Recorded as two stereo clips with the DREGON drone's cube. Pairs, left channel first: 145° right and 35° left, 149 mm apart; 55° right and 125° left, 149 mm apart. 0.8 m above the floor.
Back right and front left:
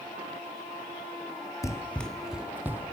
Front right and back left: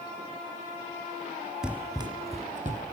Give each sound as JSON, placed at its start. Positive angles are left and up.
{"t": 1.6, "sound": "running footsteps", "azimuth_deg": -155, "distance_m": 0.8}